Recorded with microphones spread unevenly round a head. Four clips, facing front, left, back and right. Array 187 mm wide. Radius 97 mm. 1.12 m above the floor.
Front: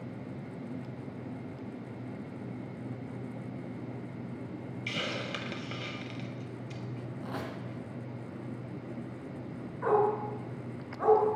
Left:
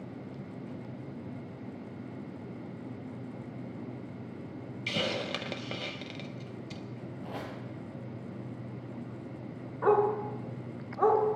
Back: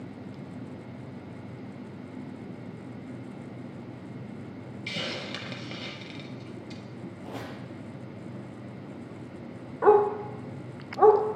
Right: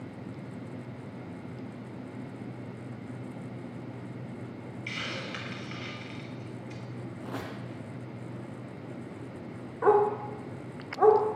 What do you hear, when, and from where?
4.9 s a hiss: 90° left, 0.5 m
7.2 s a squeak: 60° right, 2.5 m
9.8 s a dog barking: 165° right, 1.3 m